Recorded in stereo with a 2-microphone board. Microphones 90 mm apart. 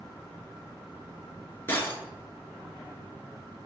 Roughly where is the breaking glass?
Left.